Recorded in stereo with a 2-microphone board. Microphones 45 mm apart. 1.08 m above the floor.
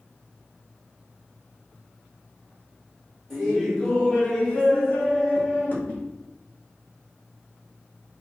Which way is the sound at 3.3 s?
5° left (ahead or behind).